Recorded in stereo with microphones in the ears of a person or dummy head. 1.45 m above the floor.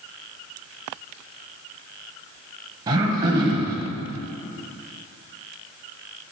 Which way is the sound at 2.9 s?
25° right (ahead or behind).